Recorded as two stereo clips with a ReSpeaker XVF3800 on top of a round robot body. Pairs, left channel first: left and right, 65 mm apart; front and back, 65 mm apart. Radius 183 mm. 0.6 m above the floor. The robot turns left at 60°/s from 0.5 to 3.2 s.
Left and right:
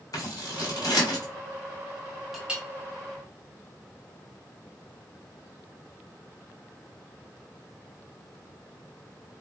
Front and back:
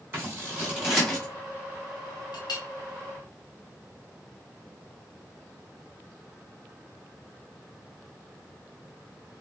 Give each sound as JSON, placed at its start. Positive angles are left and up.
{"t": 0.1, "sound": "scissors", "azimuth_deg": 120, "distance_m": 2.0}
{"t": 2.3, "sound": "a clink", "azimuth_deg": 0, "distance_m": 1.2}